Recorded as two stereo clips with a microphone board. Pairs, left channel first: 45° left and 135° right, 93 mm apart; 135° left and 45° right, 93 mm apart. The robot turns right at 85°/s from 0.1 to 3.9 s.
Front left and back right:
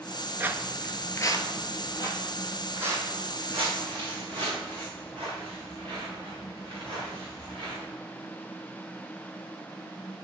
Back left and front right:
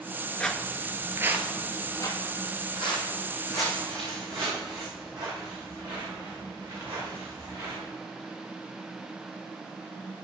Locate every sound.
0.4 s footsteps: 170° right, 0.5 m; by 7.8 s 105° right, 5.5 m